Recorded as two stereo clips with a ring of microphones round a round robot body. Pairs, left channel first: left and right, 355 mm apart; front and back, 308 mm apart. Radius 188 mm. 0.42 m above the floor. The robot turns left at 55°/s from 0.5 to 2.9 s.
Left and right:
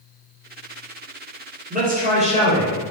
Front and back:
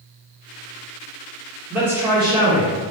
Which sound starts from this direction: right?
A man speaking, at 1.7 s.